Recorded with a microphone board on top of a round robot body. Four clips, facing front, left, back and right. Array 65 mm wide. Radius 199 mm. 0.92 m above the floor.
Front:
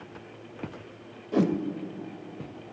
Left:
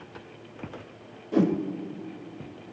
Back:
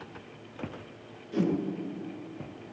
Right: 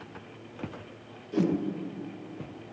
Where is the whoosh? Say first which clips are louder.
Left 4 dB, front 4 dB; 45° left, 1.1 m.